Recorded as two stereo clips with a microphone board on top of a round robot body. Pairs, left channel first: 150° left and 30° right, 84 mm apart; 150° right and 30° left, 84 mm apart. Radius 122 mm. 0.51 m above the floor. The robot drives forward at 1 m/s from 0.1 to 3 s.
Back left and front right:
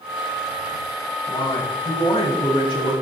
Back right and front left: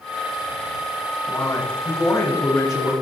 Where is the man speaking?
160° left, 5.5 m; by 2.9 s 165° left, 7.5 m.